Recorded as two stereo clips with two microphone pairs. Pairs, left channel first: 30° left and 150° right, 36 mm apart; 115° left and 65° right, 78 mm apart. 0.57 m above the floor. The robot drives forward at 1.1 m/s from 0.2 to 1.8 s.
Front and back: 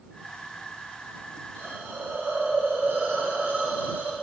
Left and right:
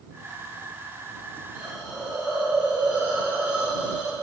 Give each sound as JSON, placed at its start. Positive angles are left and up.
{"t": 1.6, "sound": "a hiss", "azimuth_deg": -135, "distance_m": 4.5}